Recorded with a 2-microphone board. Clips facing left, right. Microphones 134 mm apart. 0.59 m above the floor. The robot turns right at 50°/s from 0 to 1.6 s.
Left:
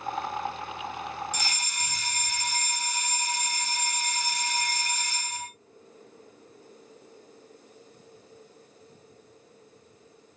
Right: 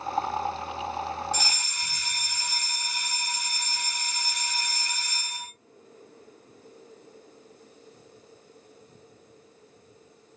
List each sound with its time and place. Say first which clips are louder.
1.3 s a fire alarm: right 2 dB; 15° left (ahead or behind), 1.7 m; by 5.5 s 20° left (ahead or behind), 1.7 m